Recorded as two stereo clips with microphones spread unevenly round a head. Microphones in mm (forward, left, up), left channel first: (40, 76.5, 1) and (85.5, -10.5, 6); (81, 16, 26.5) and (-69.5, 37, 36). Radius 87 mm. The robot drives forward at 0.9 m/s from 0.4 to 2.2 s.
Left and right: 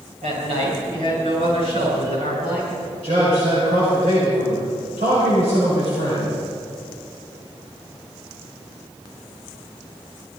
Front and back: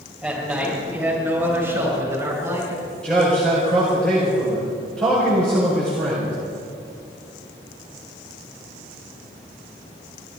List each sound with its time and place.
0.2 s a man speaking: 100° right, 7 m; by 2.9 s 115° right, 7 m
3.0 s a man speaking: 95° right, 5 m